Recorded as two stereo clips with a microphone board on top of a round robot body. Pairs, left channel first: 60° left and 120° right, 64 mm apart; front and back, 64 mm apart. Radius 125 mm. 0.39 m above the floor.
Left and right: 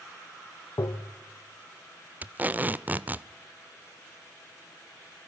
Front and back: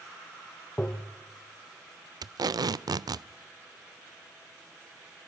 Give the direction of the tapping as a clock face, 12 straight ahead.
10 o'clock.